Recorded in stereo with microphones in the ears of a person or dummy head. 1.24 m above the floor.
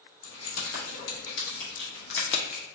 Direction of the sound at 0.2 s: 75° left (ahead or behind).